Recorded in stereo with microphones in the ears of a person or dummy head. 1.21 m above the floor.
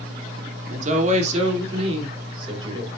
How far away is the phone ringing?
I don't hear a phone ringing.